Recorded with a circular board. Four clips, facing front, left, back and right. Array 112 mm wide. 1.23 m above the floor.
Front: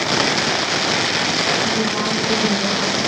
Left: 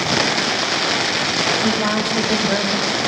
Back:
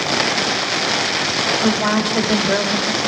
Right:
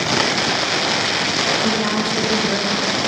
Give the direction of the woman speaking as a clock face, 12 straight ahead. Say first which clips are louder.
Even, back 3 dB; 6 o'clock.